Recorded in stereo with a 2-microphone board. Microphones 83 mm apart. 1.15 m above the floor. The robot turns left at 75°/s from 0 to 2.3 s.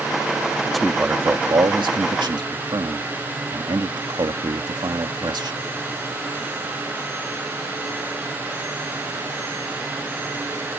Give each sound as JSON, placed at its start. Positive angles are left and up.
{"t": 0.7, "sound": "a man speaking", "azimuth_deg": 5}